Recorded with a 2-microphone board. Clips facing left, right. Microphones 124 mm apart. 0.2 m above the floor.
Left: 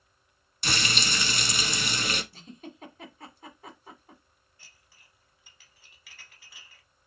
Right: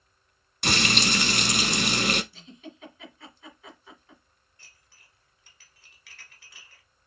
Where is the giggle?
40° left (ahead or behind), 1.3 m.